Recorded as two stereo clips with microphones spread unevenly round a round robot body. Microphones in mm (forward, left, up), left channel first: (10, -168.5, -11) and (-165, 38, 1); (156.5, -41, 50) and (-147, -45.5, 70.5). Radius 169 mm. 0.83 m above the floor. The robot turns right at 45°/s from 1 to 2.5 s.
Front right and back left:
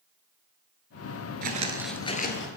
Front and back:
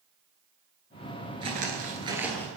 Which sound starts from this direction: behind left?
Footsteps, at 1.4 s.